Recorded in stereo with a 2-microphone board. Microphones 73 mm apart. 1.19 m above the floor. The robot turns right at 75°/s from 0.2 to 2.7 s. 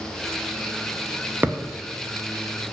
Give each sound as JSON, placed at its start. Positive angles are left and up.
{"t": 1.4, "sound": "a thud", "side_deg": -25, "distance_m": 0.5}